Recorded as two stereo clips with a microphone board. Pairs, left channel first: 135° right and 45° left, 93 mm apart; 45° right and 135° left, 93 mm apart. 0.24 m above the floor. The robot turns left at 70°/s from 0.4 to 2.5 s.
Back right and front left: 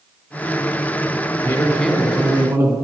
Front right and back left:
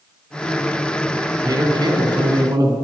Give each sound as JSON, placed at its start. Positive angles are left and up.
{"t": 1.4, "sound": "a man speaking", "azimuth_deg": 165, "distance_m": 2.5}